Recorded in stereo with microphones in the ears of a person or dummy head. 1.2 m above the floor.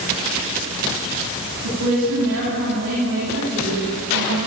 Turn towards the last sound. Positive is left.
turn(degrees=-65)  # may be behind; listen again after turning